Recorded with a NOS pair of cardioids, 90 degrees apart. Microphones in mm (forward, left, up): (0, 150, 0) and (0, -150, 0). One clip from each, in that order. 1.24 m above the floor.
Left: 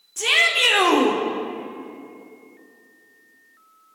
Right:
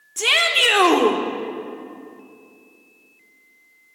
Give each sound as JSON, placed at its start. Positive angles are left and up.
{"t": 0.2, "sound": "a shout", "azimuth_deg": -25, "distance_m": 3.0}